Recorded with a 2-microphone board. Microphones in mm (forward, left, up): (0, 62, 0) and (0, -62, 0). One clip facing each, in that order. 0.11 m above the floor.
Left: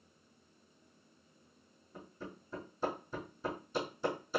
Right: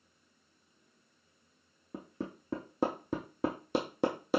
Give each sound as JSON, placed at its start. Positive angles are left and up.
{"t": 1.9, "sound": "hammering", "side_deg": -75, "distance_m": 1.4}